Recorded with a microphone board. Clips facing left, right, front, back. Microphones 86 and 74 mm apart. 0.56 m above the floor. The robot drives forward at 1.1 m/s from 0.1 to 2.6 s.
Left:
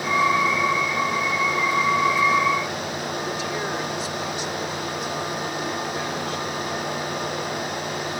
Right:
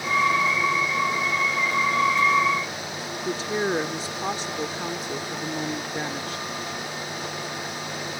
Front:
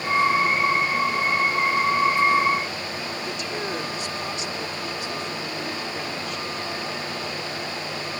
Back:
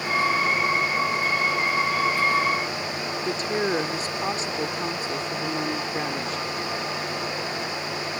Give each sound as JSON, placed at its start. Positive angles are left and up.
{"t": 3.2, "sound": "a woman speaking", "azimuth_deg": -140}